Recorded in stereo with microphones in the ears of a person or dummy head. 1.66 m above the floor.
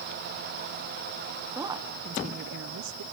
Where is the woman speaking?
15° right (ahead or behind), 1.2 m; by 3.0 s 80° right, 0.9 m.